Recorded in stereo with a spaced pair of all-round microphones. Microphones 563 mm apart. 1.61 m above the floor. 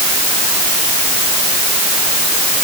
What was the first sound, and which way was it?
Only background noise.